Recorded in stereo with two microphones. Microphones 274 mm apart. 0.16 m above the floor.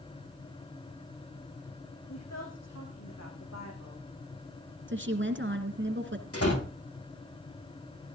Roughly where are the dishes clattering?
I don't hear dishes clattering.